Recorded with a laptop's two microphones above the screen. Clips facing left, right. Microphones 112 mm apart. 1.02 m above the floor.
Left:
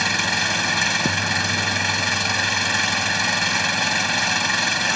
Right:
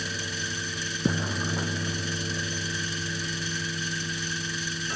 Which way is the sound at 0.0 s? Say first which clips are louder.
Left 10 dB; 80° left.